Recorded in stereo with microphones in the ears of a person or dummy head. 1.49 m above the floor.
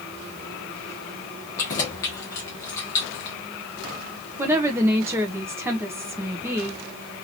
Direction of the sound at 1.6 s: 20° left (ahead or behind).